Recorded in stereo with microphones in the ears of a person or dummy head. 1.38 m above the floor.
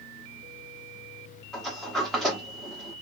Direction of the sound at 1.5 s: 5° left (ahead or behind).